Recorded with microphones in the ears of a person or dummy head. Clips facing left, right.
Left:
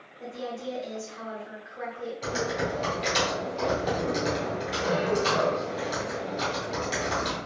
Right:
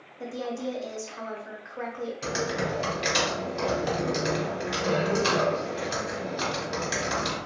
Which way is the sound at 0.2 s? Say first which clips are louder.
Right 3 dB; 55° right (ahead or behind).